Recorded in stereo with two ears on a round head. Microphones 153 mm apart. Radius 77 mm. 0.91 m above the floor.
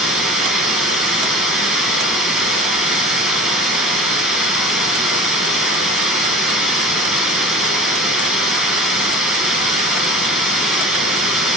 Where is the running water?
5° right (ahead or behind), 1.3 m.